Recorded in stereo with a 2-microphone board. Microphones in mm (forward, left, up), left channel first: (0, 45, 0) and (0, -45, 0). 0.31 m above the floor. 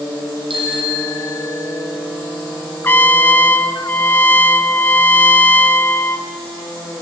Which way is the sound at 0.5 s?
70° right (ahead or behind).